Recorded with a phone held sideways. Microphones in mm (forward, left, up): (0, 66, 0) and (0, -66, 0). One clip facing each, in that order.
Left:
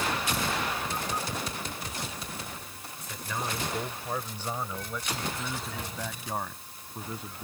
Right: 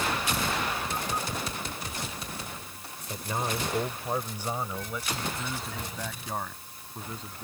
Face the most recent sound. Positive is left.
turn(degrees=10)  # may be behind; listen again after turning